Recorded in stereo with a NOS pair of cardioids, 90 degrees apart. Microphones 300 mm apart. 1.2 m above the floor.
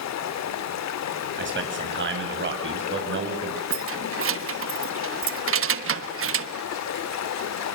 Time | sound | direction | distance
0.0 | running water | 65° left | 1.8 m
1.4 | a man speaking | 40° right | 7.5 m
3.7 | keys jangling | 45° right | 1.4 m